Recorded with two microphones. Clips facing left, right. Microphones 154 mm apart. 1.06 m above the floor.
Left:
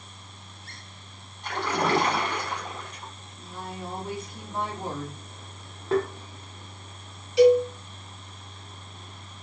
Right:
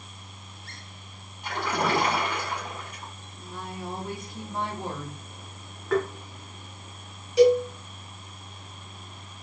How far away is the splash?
About 1.3 m.